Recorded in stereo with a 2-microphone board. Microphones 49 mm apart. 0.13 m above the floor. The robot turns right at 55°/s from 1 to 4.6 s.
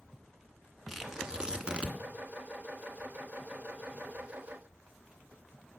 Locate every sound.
0.9 s tearing paper: 5° right (ahead or behind), 1.1 m; by 2.0 s 25° right (ahead or behind), 1.1 m